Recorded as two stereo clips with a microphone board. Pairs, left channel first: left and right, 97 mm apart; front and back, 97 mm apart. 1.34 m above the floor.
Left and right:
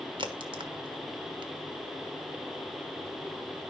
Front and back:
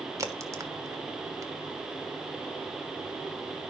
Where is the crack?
120° right, 1.3 m.